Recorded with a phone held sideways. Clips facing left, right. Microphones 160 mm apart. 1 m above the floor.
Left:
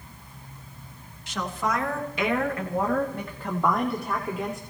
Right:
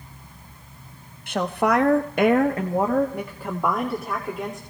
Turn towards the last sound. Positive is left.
turn(degrees=0)  # may be behind; listen again after turning